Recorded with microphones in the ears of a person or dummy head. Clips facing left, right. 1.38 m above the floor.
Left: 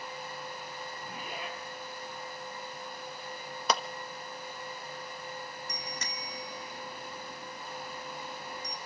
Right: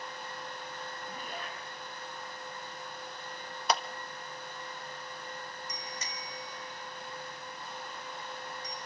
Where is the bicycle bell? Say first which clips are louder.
Left 2 dB; 50° left (ahead or behind), 2.5 m.